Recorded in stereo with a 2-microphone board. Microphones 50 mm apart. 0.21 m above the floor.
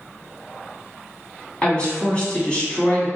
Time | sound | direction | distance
1.6 | a woman speaking | 20° left (ahead or behind) | 1.3 m